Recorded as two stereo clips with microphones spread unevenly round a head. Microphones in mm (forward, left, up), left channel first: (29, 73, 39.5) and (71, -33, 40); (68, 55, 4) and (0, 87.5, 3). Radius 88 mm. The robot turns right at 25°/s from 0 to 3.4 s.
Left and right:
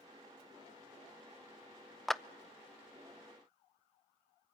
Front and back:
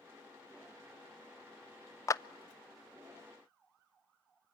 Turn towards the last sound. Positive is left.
turn(degrees=55)